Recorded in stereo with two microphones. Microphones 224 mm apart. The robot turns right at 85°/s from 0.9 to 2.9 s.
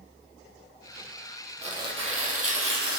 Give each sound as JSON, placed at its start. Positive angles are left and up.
{"t": 1.6, "sound": "tearing paper", "azimuth_deg": -155, "distance_m": 2.5}